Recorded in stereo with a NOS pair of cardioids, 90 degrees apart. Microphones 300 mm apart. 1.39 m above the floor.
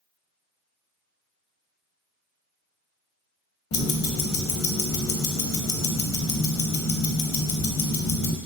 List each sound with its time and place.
3.7 s ticking: 50° left, 0.6 m